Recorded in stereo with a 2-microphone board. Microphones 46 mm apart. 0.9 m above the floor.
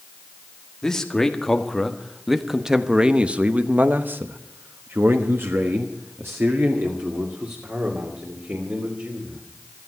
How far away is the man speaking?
About 1.8 m.